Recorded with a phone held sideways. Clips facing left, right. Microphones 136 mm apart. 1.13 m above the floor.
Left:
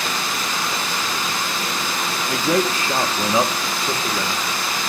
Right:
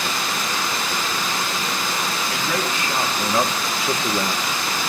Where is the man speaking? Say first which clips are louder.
Left 9 dB; 50° left (ahead or behind), 1.4 m; by 4.4 s 25° right (ahead or behind), 1.3 m.